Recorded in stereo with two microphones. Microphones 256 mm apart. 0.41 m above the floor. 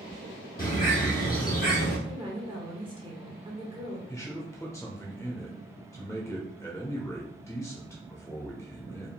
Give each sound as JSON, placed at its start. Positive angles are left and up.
{"t": 0.6, "sound": "a bird", "side_deg": 35, "distance_m": 2.0}
{"t": 2.1, "sound": "a woman speaking", "side_deg": -20, "distance_m": 1.2}
{"t": 4.1, "sound": "a man speaking", "side_deg": 10, "distance_m": 0.9}